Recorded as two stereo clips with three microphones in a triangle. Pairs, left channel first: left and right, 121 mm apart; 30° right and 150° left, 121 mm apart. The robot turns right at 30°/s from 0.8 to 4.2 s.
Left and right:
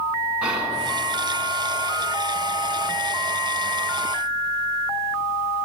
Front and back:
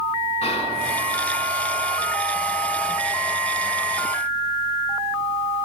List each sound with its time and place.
0.4 s whispering: 10° right, 2 m